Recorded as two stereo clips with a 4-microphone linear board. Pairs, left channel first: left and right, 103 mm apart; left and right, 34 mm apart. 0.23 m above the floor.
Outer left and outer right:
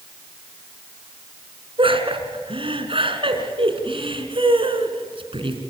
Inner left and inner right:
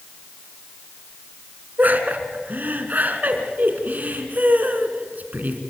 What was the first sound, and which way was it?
Laughter, 60° right (ahead or behind).